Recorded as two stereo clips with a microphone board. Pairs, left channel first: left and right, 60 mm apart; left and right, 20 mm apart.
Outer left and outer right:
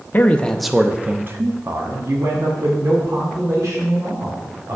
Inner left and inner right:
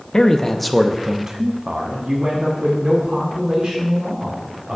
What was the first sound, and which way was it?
A man speaking, 35° left (ahead or behind).